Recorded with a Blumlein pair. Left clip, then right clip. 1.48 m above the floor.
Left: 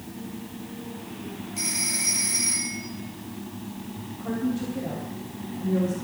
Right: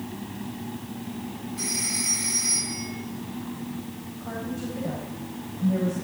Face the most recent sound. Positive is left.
turn(degrees=60)